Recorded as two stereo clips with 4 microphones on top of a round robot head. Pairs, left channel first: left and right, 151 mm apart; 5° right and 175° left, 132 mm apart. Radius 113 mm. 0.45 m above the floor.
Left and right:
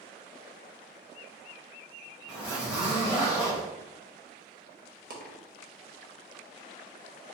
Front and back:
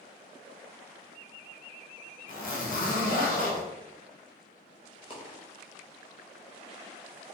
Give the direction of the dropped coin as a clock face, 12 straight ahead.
2 o'clock.